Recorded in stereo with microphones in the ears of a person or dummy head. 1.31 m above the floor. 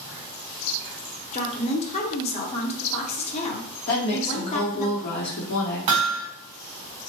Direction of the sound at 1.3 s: 35° left (ahead or behind).